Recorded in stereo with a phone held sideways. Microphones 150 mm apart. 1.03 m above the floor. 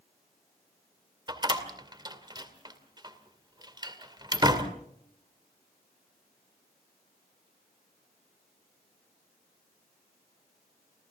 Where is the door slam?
30° right (ahead or behind), 2.5 m.